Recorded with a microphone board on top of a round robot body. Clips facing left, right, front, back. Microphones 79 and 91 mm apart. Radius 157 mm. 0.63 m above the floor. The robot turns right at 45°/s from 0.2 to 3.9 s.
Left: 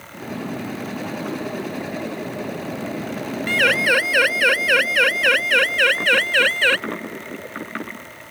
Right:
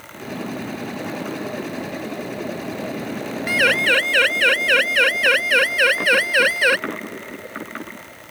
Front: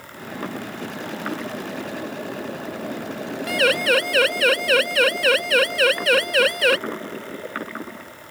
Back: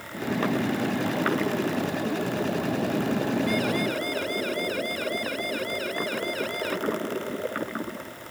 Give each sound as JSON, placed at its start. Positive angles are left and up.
{"t": 3.5, "sound": "a siren", "azimuth_deg": -10}